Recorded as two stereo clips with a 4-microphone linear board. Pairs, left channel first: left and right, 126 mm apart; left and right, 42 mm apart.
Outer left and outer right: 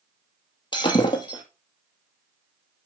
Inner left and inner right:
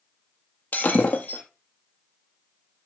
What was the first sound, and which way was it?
Breaking glass, 35° left (ahead or behind).